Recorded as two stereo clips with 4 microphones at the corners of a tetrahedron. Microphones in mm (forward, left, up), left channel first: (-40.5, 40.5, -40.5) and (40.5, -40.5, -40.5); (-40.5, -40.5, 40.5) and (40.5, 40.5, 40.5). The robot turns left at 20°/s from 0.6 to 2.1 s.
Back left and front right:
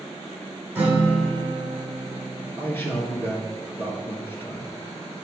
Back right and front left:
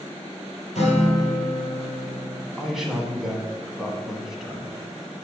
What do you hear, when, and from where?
0.8 s a guitar: 120° right, 2 m; by 2.5 s 145° right, 2 m
2.6 s a man speaking: 125° left, 1.1 m